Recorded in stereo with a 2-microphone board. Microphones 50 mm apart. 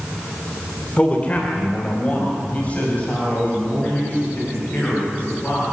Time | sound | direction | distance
1.0 | a man speaking | 30° left (ahead or behind) | 2 m